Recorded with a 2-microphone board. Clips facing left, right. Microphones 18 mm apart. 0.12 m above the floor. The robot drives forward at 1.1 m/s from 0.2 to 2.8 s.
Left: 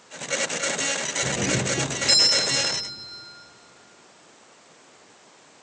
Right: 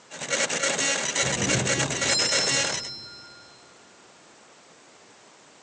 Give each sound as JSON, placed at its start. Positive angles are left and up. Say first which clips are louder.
{"t": 1.2, "sound": "a doorbell", "louder": "left 1 dB", "side_deg": 50, "distance_m": 2.5}